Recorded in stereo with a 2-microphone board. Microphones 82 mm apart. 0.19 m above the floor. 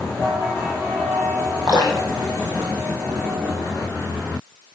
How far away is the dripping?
About 4 m.